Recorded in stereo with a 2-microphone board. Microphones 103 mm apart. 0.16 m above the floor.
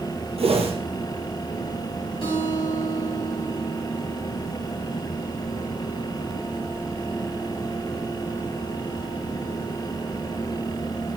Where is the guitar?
60° left (ahead or behind), 4 m.